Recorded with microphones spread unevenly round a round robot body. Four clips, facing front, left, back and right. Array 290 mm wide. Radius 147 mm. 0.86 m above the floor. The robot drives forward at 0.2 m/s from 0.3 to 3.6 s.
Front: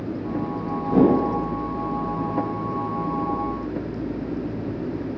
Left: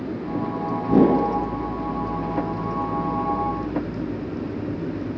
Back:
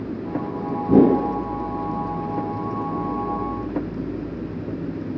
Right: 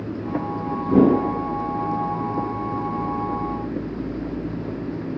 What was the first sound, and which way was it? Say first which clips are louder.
A whoosh: right 1 dB, back 2 dB; 175° left.